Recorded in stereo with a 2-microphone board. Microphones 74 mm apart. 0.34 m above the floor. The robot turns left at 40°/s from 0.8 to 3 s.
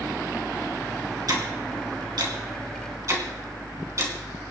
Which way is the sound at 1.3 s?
60° right (ahead or behind).